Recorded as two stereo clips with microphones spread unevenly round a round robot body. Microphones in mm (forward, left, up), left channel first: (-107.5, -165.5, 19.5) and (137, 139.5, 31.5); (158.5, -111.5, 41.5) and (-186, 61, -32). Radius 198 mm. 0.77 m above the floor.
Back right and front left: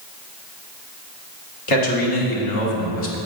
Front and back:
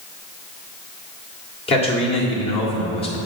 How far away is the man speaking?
About 1.7 m.